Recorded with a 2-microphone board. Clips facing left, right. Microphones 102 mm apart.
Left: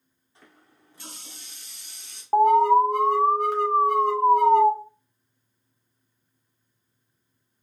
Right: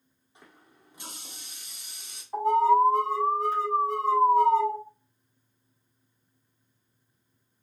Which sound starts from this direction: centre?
A running tap, at 0.3 s.